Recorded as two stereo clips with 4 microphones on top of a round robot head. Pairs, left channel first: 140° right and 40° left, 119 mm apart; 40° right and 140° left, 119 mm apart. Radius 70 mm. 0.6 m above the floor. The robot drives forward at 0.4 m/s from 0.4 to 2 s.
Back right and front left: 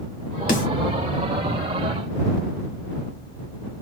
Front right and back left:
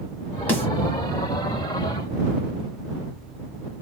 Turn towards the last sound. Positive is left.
turn(degrees=-135)